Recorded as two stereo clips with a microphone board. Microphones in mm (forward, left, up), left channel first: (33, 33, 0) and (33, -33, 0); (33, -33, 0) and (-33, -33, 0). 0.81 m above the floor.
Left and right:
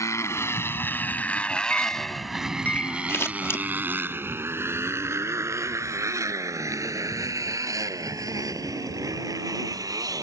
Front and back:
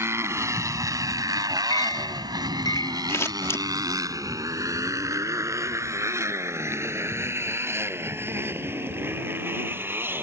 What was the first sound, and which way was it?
A motorcycle, 130° left.